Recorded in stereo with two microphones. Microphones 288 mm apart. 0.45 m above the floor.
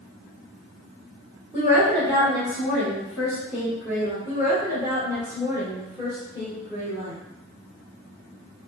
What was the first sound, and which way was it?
A woman speaking, 10° right (ahead or behind).